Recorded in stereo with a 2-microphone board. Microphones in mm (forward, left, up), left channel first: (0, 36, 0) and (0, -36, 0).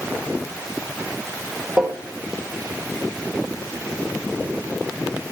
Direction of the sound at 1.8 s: 10° right (ahead or behind).